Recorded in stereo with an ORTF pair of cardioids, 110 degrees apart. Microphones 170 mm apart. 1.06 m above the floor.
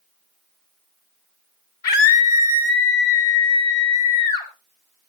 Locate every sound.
1.8 s a scream: 65° left, 3 m; by 4.5 s 80° left, 7 m